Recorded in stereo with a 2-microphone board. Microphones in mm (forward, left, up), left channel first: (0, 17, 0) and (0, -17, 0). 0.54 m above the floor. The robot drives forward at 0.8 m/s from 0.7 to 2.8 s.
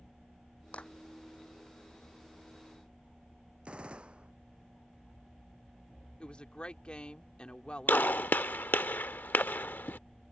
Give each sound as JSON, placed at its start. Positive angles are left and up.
{"t": 0.7, "sound": "a clap", "side_deg": 40}
{"t": 3.6, "sound": "a gunshot", "side_deg": -30}
{"t": 6.2, "sound": "a woman speaking", "side_deg": 30}
{"t": 7.9, "sound": "a gunshot", "side_deg": 70}